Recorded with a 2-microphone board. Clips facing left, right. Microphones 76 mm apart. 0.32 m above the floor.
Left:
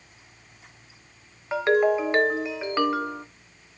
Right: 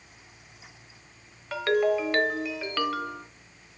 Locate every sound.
1.5 s a ringtone: 25° left (ahead or behind), 1.0 m